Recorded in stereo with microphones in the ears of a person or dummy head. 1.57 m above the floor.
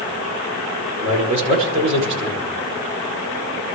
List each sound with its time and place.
1.0 s a man speaking: 40° right (ahead or behind), 6 m